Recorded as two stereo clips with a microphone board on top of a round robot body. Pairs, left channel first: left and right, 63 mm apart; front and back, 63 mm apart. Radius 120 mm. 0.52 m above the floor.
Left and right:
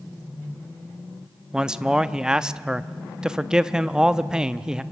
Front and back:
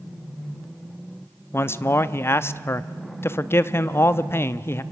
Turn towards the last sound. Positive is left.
turn(degrees=-15)